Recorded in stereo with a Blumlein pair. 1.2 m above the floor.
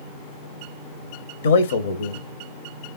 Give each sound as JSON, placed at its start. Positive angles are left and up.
{"t": 1.4, "sound": "a man speaking", "azimuth_deg": 65, "distance_m": 0.8}